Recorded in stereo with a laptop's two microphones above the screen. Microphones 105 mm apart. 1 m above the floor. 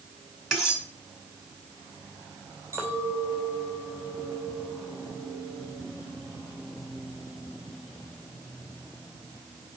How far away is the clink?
About 3 m.